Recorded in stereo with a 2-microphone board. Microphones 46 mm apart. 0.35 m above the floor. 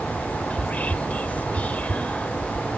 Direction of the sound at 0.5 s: 30° left (ahead or behind).